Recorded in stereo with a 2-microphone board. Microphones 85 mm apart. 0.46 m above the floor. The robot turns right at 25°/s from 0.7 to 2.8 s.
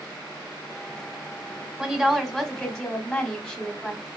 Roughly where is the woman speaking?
Centre.